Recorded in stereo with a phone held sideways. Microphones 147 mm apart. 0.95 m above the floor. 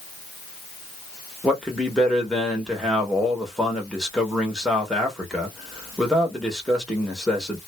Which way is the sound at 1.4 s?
Centre (ahead or behind).